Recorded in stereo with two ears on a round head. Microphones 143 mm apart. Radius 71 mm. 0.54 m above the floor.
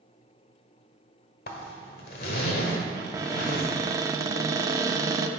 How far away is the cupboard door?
About 0.6 m.